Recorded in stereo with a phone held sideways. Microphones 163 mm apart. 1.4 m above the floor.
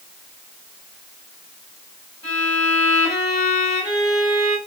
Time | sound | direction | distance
2.2 | a violin | 35° left (ahead or behind) | 1.9 m